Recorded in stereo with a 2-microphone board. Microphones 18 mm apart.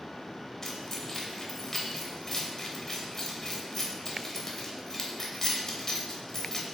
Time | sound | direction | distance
0.6 | keys jangling | 25° left (ahead or behind) | 0.8 m